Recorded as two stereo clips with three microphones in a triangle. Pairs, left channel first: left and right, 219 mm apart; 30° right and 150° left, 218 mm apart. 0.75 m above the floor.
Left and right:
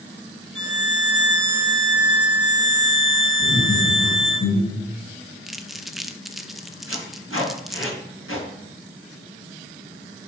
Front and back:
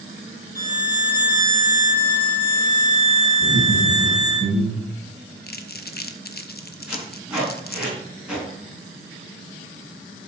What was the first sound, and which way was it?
A violin, 105° left.